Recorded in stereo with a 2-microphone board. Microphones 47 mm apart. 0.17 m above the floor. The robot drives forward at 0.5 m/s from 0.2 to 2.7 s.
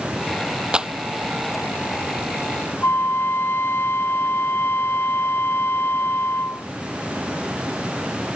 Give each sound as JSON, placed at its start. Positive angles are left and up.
{"t": 0.7, "sound": "a clap", "side_deg": -20}
{"t": 2.8, "sound": "a flute", "side_deg": 55}